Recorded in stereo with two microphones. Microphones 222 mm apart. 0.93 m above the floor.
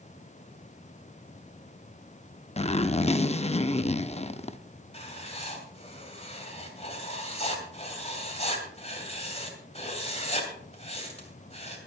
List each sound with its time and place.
2.6 s a zipper: 30° left (ahead or behind), 0.6 m
4.9 s writing: 30° left (ahead or behind), 2.5 m